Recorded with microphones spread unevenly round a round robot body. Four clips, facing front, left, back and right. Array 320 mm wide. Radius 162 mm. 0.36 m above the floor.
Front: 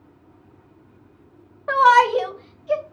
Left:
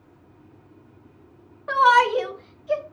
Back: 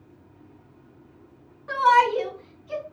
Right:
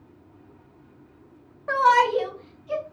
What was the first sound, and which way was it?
A shout, 10° right.